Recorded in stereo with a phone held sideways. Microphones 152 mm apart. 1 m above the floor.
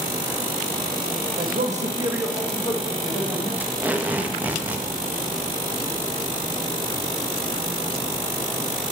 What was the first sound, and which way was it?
A man speaking, 75° right (ahead or behind).